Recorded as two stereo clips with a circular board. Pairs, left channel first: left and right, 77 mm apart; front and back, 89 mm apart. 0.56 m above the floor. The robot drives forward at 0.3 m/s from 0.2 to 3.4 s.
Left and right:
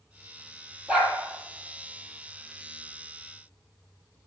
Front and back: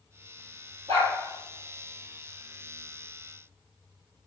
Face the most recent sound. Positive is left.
turn(degrees=-165)